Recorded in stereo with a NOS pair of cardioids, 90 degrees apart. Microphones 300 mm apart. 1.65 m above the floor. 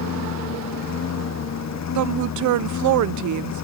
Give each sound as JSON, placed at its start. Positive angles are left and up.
{"t": 0.0, "sound": "a lawn mower", "azimuth_deg": 60}
{"t": 1.9, "sound": "a woman speaking", "azimuth_deg": -70}